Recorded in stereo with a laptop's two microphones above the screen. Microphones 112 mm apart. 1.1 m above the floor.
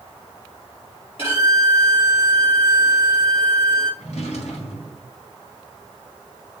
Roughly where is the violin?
Left.